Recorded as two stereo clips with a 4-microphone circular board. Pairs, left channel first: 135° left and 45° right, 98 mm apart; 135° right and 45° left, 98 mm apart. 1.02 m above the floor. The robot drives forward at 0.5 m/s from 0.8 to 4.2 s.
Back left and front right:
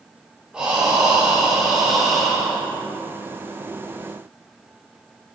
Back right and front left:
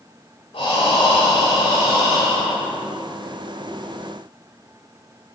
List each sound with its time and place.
0.5 s breathing: 125° right, 5.5 m; by 2.8 s 135° right, 6 m